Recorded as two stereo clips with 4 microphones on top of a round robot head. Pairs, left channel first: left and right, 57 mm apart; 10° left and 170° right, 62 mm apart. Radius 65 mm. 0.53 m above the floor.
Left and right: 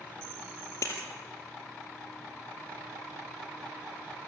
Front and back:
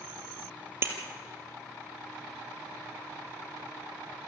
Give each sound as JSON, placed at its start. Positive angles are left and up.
{"t": 0.8, "sound": "breaking glass", "azimuth_deg": 135, "distance_m": 3.0}